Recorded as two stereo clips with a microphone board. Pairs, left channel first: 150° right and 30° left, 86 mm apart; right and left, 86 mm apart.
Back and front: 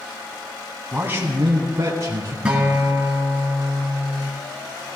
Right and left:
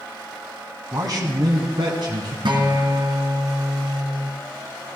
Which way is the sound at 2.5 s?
105° left.